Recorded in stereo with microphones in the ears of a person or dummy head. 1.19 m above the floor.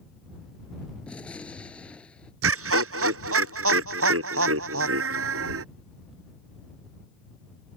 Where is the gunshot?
5° left (ahead or behind).